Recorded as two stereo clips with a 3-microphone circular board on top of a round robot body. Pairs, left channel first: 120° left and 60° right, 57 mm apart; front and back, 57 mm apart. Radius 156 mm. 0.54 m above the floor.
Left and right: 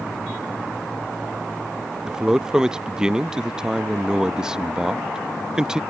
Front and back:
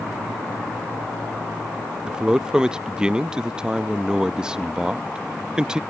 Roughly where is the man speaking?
Behind right.